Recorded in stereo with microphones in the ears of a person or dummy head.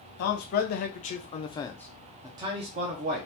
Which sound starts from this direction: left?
A man speaking, at 0.2 s.